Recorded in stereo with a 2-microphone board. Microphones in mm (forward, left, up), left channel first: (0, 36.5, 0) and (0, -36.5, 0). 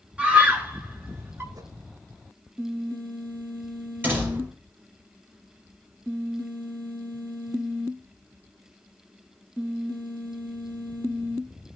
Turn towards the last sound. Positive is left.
turn(degrees=-25)  # may be behind; listen again after turning